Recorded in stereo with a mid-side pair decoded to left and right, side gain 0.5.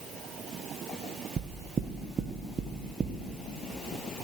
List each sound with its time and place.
1.4 s knocking: 40° right, 0.7 m